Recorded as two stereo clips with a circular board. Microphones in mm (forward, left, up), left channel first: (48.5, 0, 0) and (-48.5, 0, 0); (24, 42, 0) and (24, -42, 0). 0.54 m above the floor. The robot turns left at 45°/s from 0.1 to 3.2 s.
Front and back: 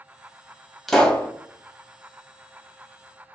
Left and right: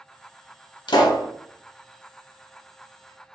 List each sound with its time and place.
0.9 s a pop: 90° left, 0.9 m; by 1.3 s 70° left, 0.9 m